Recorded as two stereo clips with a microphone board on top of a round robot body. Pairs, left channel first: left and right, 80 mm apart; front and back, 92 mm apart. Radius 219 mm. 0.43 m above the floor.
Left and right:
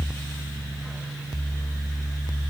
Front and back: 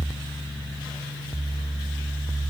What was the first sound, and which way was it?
Only background noise.